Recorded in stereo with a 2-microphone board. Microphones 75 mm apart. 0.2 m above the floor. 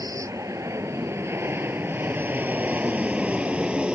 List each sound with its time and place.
0.0 s an aircraft: 45° right (ahead or behind); by 4.0 s 10° right (ahead or behind)